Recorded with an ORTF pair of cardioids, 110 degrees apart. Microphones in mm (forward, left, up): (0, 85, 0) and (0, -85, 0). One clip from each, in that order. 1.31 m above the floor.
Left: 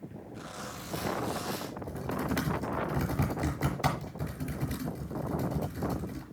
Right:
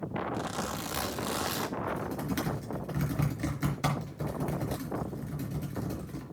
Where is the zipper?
65° right, 1.9 m.